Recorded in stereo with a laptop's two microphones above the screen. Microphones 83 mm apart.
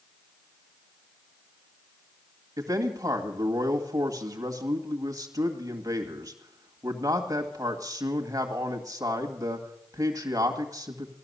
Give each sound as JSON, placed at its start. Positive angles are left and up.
{"t": 2.6, "sound": "a man speaking", "side_deg": -40, "distance_m": 2.0}